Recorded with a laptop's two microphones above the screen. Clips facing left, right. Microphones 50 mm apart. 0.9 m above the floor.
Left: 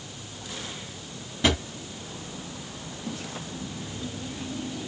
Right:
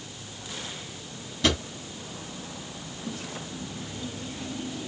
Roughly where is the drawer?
Left.